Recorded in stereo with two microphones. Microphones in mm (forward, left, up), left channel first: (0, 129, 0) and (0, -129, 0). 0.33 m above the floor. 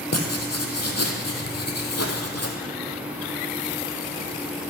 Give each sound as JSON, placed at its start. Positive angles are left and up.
{"t": 0.1, "sound": "writing", "side_deg": 85, "distance_m": 1.9}